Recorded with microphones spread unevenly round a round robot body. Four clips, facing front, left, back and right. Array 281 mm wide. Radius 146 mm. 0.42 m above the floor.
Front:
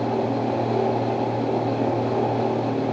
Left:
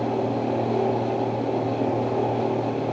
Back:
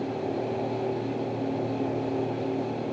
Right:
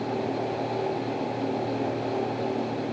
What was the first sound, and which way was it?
Only background noise.